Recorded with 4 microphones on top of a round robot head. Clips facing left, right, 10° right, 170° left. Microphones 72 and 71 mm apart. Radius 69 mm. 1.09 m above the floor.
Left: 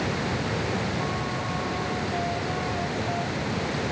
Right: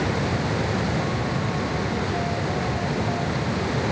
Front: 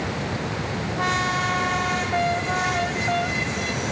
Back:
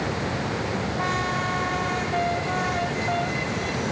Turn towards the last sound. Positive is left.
No sound to turn to.